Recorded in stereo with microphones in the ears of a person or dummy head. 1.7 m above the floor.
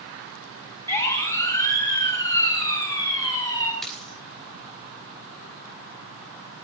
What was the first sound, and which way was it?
A siren, 15° left (ahead or behind).